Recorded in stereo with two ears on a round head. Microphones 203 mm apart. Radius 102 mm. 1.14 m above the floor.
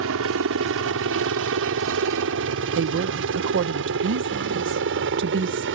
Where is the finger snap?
I don't hear a finger snap.